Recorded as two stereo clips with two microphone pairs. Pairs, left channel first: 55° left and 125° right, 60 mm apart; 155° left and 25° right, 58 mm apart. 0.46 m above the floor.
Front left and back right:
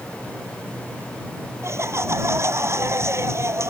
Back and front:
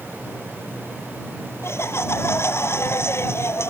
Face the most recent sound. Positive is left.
turn(degrees=-160)